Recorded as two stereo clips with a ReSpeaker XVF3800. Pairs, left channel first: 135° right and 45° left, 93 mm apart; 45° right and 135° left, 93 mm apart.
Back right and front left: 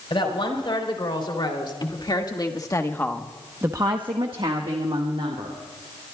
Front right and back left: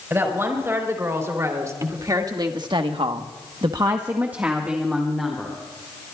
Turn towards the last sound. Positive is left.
turn(degrees=45)